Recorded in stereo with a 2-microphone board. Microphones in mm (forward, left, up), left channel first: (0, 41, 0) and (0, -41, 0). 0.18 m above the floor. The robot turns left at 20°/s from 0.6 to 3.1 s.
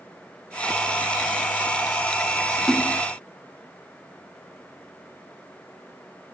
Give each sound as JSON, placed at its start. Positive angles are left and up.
{"t": 2.7, "sound": "a splash", "side_deg": 5}